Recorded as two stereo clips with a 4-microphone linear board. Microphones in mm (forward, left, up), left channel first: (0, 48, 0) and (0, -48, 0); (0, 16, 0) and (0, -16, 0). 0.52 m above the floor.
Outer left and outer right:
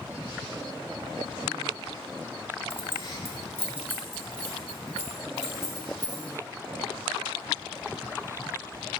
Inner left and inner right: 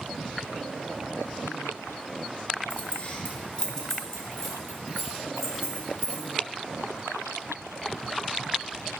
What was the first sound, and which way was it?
Keys jangling, 60° left (ahead or behind).